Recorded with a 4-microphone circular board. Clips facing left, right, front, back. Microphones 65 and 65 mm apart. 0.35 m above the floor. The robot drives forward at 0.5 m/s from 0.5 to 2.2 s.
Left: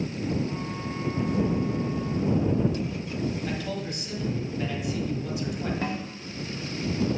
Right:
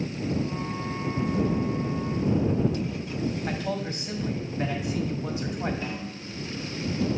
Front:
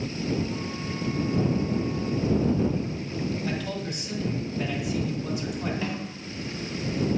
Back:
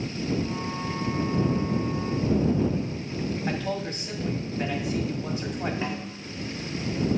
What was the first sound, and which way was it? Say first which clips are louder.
A man speaking: right 2 dB, back 2 dB; 135° right.